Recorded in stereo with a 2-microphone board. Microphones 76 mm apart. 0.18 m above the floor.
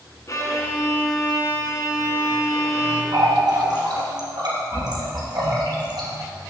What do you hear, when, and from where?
0.3 s a violin: 45° left (ahead or behind), 1.8 m
3.1 s a running tap: 65° right (ahead or behind), 3 m